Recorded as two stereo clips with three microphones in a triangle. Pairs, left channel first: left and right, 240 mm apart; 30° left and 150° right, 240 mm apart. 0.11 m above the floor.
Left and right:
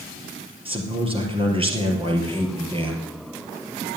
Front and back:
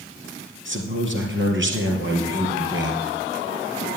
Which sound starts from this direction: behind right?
A man speaking, at 0.7 s.